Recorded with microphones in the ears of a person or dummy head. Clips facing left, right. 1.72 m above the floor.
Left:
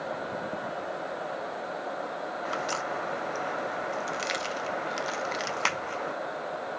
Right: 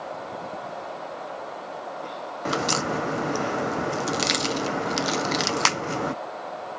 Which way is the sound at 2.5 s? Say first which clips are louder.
Right 9 dB; 60° right (ahead or behind).